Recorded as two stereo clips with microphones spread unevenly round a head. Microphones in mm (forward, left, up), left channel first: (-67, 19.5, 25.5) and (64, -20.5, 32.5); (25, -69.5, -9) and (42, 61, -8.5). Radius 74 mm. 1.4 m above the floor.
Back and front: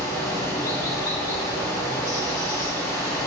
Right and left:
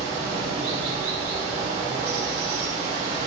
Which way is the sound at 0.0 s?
95° left.